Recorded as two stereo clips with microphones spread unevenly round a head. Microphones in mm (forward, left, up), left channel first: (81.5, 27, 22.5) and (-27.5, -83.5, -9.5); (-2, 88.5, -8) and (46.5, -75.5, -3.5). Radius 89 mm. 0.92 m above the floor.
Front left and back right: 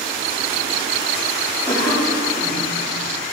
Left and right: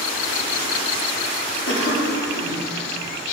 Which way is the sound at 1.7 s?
130° left.